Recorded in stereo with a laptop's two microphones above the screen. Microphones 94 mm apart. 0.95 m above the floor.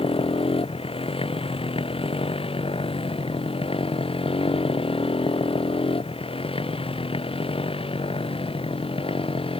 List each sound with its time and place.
0.0 s a motorcycle: 80° left; by 9.6 s 75° left (ahead or behind)